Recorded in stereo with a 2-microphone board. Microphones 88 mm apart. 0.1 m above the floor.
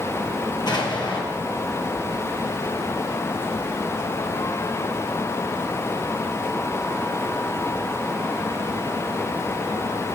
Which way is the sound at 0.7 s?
55° left (ahead or behind).